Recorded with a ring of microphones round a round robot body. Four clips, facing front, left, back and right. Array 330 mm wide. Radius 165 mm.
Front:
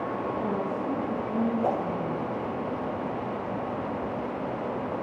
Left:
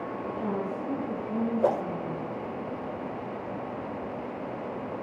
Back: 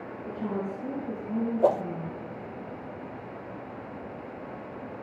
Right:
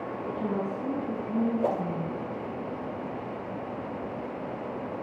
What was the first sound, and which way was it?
A woman speaking, 140° right.